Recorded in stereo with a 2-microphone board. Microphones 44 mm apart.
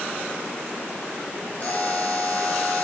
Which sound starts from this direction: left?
A buzzer, at 1.6 s.